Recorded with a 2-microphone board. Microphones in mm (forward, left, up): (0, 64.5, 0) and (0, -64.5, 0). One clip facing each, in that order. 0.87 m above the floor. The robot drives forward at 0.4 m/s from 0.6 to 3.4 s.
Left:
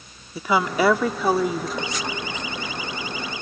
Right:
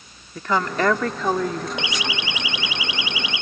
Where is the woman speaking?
10° left (ahead or behind).